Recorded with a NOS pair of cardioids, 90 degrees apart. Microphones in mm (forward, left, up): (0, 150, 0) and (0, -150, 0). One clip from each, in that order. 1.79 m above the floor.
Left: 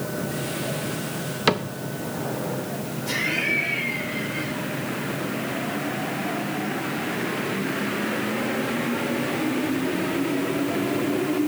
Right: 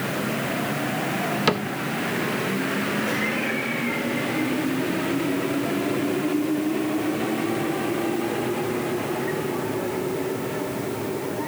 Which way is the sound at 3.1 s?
60° left.